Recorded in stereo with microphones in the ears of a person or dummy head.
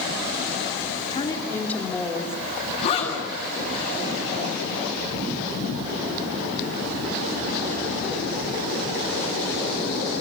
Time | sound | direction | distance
1.1 | a woman speaking | 30° left (ahead or behind) | 3 m
2.8 | a zipper | 30° left (ahead or behind) | 8 m